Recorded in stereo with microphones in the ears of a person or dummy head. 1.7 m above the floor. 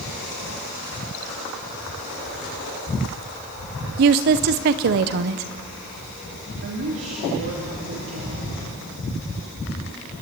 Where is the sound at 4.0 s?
45° right (ahead or behind), 0.7 m.